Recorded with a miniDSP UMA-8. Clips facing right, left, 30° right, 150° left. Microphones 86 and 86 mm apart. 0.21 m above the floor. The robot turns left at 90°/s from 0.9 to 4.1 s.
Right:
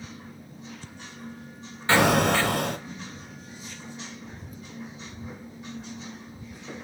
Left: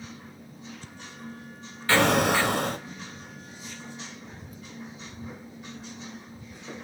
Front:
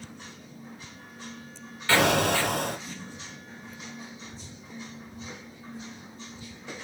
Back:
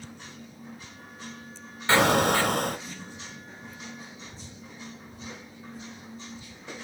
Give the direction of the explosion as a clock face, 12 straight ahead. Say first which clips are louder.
Right 1 dB, back 1 dB; 5 o'clock.